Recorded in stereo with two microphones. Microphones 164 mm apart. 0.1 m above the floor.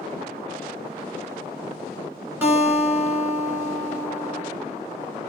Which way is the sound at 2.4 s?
15° right (ahead or behind).